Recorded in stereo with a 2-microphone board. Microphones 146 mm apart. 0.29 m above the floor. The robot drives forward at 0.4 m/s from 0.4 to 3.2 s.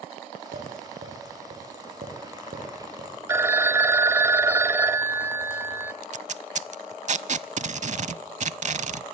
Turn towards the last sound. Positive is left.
turn(degrees=-55)  # may be behind; listen again after turning